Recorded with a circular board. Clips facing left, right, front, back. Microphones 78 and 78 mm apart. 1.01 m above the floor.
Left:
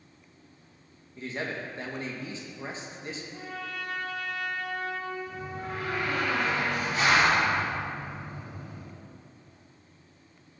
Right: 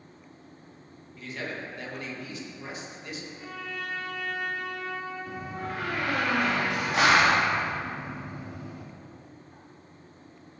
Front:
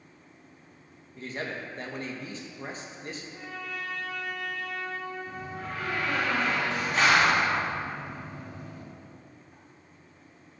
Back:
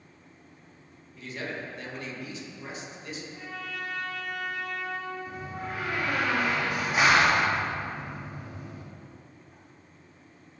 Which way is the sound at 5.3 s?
100° right.